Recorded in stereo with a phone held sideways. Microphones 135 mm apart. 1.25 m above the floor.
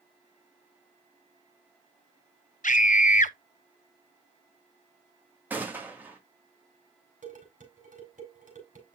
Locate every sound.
2.6 s a scream: 75° left (ahead or behind), 0.9 m
5.5 s a gunshot: 15° right (ahead or behind), 1.8 m
7.2 s dishes clattering: 75° right (ahead or behind), 4 m